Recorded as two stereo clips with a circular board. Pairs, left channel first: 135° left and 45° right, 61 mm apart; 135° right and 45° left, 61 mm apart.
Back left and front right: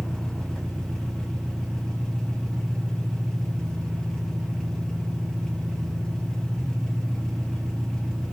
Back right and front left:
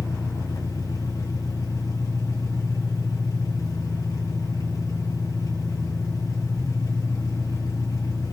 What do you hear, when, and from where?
0.0 s an engine running: 145° right, 9 m